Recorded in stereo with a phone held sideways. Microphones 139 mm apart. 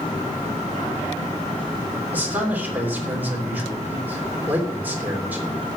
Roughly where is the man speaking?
Centre.